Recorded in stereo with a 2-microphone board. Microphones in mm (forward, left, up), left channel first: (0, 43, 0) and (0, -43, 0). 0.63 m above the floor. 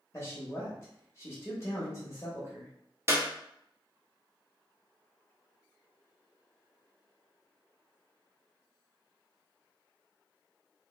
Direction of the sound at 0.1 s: 30° left (ahead or behind).